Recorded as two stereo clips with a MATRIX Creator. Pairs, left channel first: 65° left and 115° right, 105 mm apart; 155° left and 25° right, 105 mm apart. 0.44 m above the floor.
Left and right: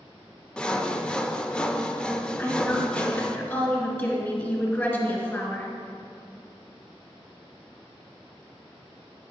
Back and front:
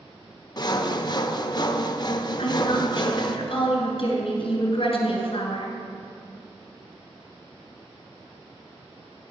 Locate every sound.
0.6 s sawing: 145° left, 0.5 m
2.4 s a woman speaking: 135° left, 2 m